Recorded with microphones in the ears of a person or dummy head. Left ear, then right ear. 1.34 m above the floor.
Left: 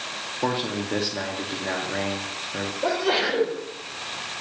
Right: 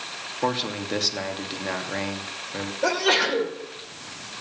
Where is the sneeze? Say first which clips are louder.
Right 2 dB; 80° right, 6.5 m.